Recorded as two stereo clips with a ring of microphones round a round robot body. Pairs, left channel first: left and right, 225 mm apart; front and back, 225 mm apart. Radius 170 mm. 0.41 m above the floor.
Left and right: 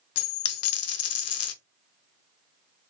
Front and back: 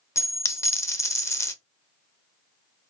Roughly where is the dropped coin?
Left.